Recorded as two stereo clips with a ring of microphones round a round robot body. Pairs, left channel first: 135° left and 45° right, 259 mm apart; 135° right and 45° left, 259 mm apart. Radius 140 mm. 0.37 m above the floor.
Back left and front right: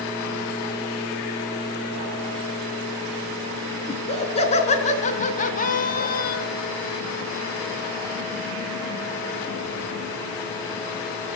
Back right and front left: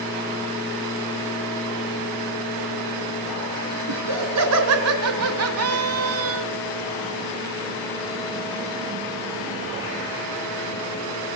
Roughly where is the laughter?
Ahead left.